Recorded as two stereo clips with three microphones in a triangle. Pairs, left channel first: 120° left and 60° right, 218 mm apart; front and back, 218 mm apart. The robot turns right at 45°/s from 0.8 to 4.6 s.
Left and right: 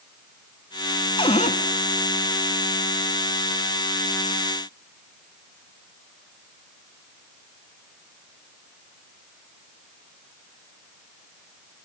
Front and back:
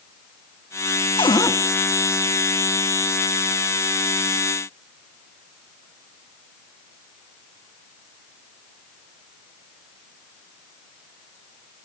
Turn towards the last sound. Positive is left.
turn(degrees=-145)